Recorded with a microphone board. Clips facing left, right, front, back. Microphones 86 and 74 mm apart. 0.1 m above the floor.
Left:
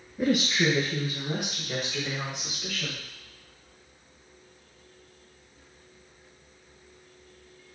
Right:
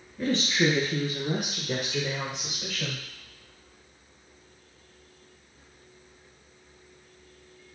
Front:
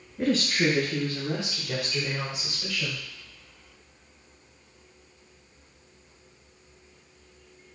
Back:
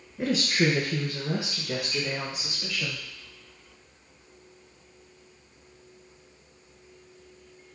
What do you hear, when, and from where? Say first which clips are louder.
0.2 s a woman speaking: left 1 dB, front 1 dB; 115° left, 1.1 m; by 3.0 s 100° right, 3.5 m